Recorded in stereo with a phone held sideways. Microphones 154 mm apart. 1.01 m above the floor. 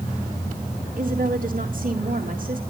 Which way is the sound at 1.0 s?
65° right (ahead or behind).